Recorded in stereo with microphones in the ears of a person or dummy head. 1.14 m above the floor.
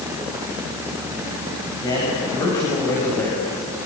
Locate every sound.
1.8 s a man speaking: 20° left (ahead or behind), 8 m; by 3.6 s 5° left (ahead or behind), 6.5 m